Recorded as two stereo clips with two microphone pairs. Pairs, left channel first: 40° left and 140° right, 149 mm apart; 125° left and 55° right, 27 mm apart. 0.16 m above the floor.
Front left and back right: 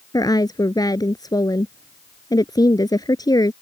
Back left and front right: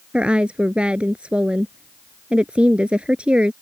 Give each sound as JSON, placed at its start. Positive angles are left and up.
{"t": 0.1, "sound": "a woman speaking", "azimuth_deg": -20}